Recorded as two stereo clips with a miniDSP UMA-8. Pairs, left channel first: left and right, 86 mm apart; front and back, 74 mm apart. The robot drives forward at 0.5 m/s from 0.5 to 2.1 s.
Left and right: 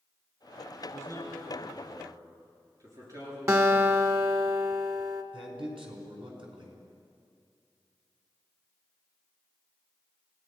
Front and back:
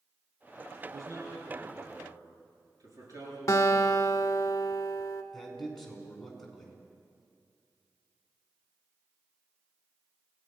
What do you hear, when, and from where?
0.8 s a man speaking: 140° right, 8 m
3.5 s a guitar: 40° right, 1.3 m
5.3 s a man speaking: 85° right, 5 m